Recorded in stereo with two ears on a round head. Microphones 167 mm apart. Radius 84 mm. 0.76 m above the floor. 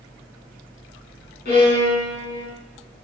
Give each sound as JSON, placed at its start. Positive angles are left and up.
{"t": 1.4, "sound": "a violin", "side_deg": 55, "distance_m": 4.5}